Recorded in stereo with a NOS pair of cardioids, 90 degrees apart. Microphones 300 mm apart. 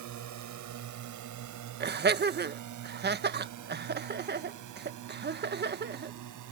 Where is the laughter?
35° right.